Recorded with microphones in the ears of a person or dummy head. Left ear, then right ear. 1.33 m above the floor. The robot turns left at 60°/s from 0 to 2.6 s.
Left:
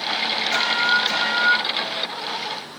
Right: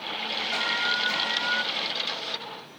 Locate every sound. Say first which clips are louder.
0.5 s an alarm: left 6 dB; 90° left, 6 m; by 1.6 s 20° left, 6 m